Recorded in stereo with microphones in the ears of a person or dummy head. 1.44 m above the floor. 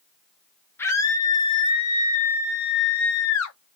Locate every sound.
0.8 s a scream: 15° left (ahead or behind), 1.4 m; by 3.6 s 80° left, 1.1 m